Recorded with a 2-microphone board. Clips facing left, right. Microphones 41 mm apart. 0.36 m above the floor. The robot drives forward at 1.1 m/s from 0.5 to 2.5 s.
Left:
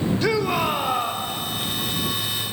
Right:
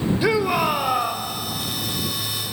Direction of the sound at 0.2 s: 10° right (ahead or behind).